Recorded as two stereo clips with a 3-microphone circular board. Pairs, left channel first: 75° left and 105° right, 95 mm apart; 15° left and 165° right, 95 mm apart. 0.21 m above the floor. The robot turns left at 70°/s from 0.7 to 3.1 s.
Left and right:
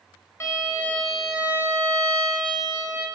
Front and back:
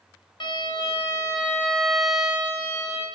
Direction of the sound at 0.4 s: 20° left.